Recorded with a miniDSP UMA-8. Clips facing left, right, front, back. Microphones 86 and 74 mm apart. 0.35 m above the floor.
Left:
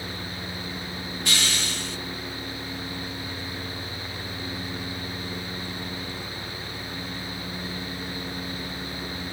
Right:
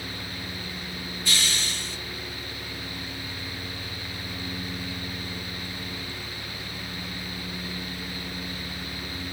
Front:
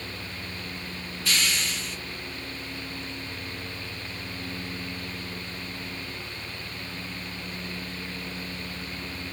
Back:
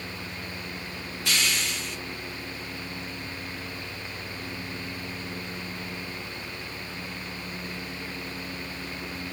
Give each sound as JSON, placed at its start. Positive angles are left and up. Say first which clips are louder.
{"t": 1.2, "sound": "a hiss", "louder": "left 2 dB, even", "azimuth_deg": 110, "distance_m": 3.0}